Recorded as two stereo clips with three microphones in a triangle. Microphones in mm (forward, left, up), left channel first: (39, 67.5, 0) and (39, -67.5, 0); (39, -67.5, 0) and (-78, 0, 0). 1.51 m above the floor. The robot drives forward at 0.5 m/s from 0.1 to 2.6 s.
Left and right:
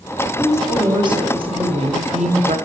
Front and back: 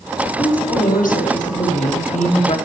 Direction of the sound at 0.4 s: 25° right.